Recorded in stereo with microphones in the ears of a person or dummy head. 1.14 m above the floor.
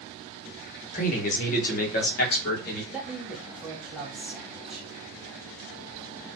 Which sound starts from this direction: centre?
A man speaking, at 2.9 s.